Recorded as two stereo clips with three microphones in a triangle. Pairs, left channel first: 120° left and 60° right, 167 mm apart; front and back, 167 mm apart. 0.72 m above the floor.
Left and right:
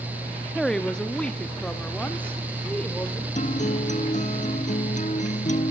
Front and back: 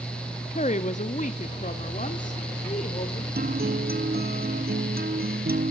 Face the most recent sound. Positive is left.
turn(degrees=160)